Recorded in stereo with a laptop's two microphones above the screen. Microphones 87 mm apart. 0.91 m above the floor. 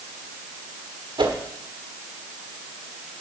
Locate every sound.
1.2 s a whoosh: 70° right (ahead or behind), 1.6 m